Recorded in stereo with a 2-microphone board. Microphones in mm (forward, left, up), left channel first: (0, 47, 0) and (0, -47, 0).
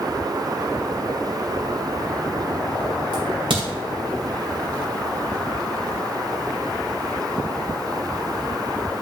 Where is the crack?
80° right, 2.5 m.